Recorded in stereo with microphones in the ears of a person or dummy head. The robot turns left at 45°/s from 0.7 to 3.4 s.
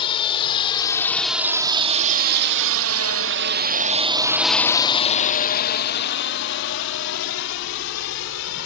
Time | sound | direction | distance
0.0 | a drone | 30° left (ahead or behind) | ?